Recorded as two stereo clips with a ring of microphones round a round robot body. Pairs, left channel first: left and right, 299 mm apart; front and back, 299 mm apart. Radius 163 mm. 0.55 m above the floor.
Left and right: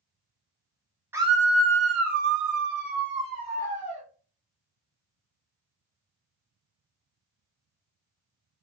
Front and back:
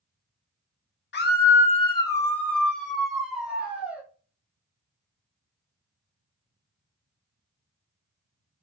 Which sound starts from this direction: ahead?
A scream, at 1.1 s.